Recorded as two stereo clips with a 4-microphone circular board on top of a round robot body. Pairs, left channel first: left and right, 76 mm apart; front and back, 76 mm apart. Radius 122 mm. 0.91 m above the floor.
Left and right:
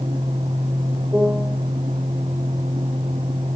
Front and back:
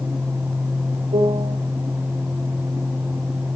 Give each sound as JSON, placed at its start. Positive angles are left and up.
{"t": 1.1, "sound": "a piano", "azimuth_deg": -160, "distance_m": 2.5}